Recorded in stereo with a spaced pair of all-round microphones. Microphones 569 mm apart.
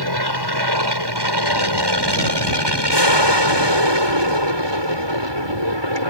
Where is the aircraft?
45° right (ahead or behind); by 6.1 s 50° right (ahead or behind).